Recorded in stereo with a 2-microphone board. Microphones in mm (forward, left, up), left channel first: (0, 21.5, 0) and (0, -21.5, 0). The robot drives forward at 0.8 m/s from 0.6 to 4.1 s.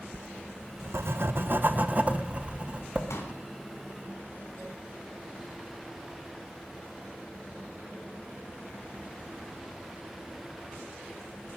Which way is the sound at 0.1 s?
60° right (ahead or behind).